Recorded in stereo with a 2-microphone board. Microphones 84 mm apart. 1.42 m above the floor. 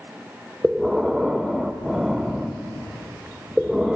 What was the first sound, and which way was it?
Breathing, 5° right (ahead or behind).